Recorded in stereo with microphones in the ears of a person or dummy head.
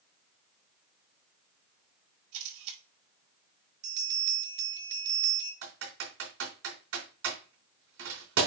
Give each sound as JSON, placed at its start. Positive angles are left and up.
{"t": 2.3, "sound": "a camera shutter", "side_deg": -80, "distance_m": 5.0}
{"t": 3.8, "sound": "a bell", "side_deg": -70, "distance_m": 5.0}
{"t": 5.6, "sound": "typing on a keyboard", "side_deg": -75, "distance_m": 4.0}